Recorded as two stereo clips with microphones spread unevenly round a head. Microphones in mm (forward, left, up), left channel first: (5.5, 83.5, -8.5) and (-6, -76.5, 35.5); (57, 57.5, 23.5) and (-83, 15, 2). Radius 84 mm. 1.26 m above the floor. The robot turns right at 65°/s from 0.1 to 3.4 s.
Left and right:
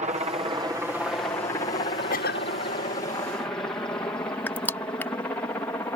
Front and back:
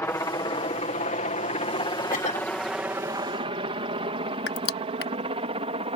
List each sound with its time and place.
0.0 s a helicopter: 55° right; by 6.0 s 155° left
2.1 s a cough: 45° left; by 2.5 s 70° left
4.5 s crushing: straight ahead